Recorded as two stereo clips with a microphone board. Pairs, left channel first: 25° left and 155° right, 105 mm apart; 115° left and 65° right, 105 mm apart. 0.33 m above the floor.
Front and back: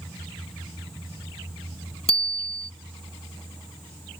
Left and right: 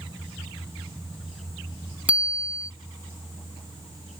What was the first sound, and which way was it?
A bicycle bell, 10° left.